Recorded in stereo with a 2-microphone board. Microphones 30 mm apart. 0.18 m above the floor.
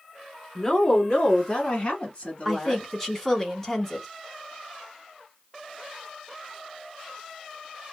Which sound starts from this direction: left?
A woman speaking, at 0.6 s.